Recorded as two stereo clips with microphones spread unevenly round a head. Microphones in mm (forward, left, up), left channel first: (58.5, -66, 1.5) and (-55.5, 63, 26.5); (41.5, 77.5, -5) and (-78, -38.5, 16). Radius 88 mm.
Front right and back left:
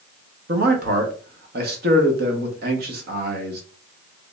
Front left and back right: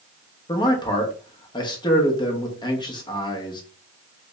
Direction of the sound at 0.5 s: 110° left.